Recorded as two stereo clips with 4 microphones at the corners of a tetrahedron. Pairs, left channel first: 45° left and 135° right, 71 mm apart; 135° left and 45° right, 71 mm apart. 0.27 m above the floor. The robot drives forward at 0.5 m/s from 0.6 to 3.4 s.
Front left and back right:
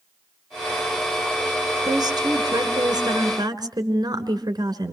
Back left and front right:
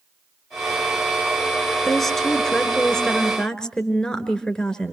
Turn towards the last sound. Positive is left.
turn(degrees=-145)